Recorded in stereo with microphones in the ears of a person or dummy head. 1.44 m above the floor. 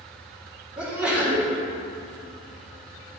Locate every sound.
0.8 s a sneeze: 5° right (ahead or behind), 3.5 m